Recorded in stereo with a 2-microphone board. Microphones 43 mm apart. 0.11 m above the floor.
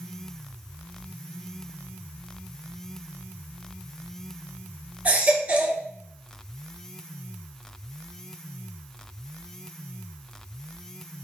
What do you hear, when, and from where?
5.0 s a baby crying: 40° right (ahead or behind), 1.5 m